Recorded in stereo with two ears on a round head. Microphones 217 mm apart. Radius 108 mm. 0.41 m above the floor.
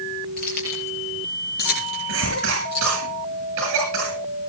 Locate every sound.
0.4 s keys jangling: 40° left (ahead or behind), 7 m; by 2.9 s 45° left (ahead or behind), 10 m
2.1 s a cough: 60° right (ahead or behind), 7 m